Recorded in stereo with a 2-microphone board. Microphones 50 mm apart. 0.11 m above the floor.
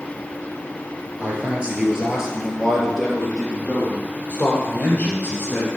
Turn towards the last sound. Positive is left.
turn(degrees=35)  # may be behind; listen again after turning